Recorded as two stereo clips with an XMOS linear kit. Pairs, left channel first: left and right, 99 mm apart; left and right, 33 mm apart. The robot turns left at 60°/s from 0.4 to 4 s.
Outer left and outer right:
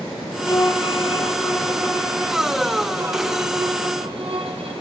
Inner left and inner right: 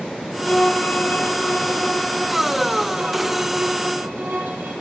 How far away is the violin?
About 5 m.